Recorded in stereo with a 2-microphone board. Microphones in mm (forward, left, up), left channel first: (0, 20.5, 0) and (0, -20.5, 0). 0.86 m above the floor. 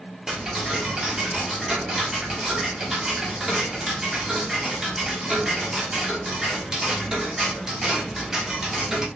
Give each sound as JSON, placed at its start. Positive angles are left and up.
{"t": 0.3, "sound": "ticking", "side_deg": -10, "distance_m": 1.2}